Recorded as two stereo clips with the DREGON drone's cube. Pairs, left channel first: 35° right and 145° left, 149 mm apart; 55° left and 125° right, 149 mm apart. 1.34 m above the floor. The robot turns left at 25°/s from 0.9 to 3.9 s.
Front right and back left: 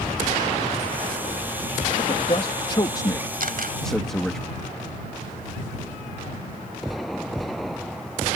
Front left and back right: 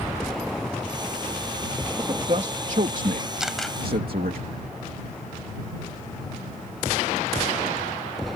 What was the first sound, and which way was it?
A man speaking, 75° right.